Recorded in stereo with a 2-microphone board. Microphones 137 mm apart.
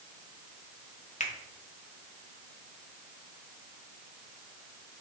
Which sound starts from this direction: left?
A finger snap, at 1.2 s.